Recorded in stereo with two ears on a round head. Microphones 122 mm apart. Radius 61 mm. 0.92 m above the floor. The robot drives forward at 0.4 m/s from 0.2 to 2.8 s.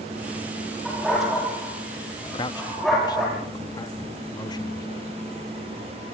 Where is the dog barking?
Centre (ahead or behind), 9.5 m.